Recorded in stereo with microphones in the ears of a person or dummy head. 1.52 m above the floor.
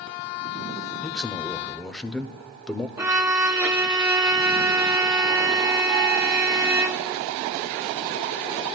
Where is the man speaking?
Centre (ahead or behind), 0.6 m.